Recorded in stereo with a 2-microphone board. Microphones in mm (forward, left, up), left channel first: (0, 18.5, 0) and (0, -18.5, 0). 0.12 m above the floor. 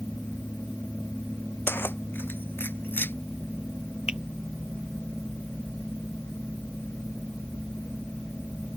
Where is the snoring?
I don't hear snoring.